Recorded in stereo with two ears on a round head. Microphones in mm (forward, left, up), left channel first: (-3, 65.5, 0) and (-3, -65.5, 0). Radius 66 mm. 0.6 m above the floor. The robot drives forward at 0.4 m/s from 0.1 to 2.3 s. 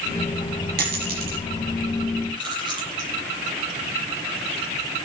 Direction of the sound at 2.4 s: 30° right (ahead or behind).